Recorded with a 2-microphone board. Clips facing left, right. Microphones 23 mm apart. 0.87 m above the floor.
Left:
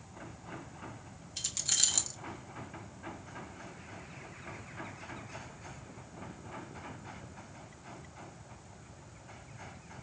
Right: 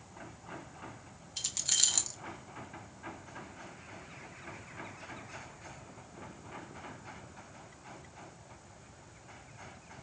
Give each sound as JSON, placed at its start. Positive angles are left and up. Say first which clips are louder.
{"t": 1.4, "sound": "keys jangling", "louder": "right 1 dB", "side_deg": -5, "distance_m": 0.7}